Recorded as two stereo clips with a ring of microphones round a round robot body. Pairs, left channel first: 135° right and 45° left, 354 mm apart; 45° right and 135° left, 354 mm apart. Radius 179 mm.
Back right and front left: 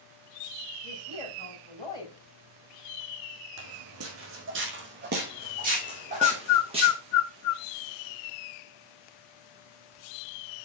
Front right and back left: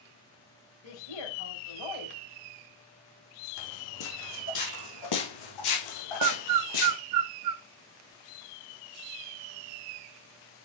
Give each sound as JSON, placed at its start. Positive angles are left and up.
{"t": 0.8, "sound": "a woman speaking", "azimuth_deg": -55, "distance_m": 4.5}
{"t": 3.6, "sound": "footsteps", "azimuth_deg": 0, "distance_m": 2.5}
{"t": 6.2, "sound": "a bird", "azimuth_deg": 175, "distance_m": 0.5}